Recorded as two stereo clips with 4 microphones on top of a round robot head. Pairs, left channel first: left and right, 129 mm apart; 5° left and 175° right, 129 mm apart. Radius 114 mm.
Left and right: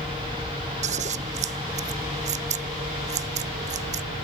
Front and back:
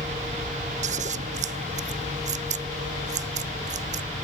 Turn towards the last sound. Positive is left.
turn(degrees=-130)